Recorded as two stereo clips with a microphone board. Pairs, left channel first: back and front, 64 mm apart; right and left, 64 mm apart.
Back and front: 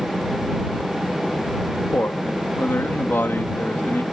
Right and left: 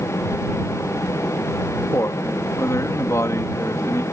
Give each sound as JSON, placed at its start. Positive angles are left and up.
{"t": 1.9, "sound": "a man speaking", "azimuth_deg": -125}